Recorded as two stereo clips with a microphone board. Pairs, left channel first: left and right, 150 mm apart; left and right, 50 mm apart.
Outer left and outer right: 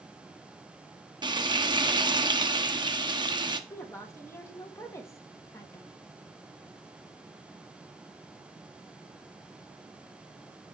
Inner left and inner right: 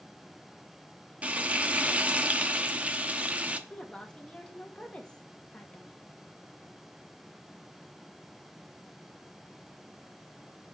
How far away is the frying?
About 0.9 m.